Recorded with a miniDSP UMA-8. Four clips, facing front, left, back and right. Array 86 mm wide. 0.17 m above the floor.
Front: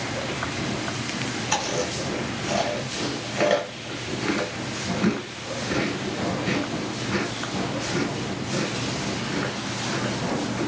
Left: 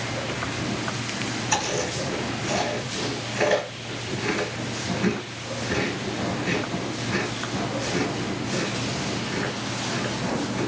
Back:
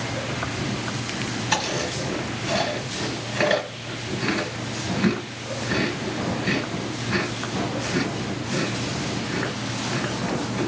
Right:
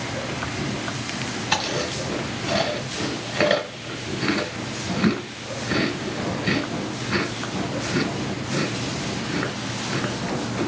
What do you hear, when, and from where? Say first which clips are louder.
1.5 s chewing: right 1 dB, even; 105° right, 1.5 m